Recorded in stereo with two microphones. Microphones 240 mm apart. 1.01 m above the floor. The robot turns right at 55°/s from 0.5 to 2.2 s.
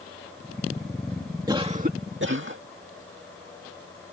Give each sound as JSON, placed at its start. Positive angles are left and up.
{"t": 1.5, "sound": "a cough", "azimuth_deg": -165}